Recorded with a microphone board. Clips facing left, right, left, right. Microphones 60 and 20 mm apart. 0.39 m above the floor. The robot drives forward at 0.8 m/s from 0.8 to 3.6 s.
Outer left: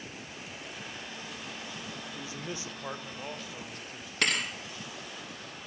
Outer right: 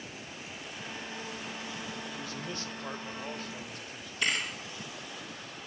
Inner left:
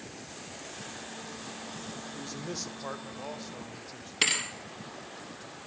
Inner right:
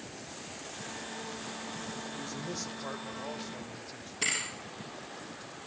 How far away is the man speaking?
About 0.9 m.